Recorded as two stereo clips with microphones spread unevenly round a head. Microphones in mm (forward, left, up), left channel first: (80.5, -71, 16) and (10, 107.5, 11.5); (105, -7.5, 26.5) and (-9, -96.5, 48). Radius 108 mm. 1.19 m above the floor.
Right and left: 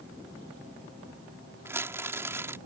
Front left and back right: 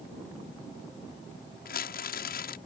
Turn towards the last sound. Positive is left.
turn(degrees=35)